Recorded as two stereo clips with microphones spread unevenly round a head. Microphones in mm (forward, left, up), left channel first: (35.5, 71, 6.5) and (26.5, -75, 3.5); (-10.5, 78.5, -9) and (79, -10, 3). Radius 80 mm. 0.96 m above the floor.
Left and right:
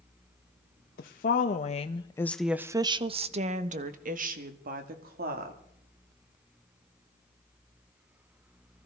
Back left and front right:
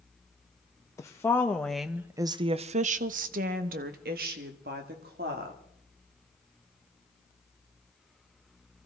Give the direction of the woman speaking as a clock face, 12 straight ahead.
10 o'clock.